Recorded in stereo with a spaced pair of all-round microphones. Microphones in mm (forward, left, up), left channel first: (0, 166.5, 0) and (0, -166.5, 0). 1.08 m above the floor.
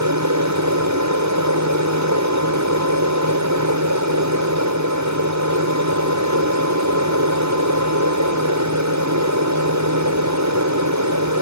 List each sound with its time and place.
0.0 s an aircraft: 55° right (ahead or behind)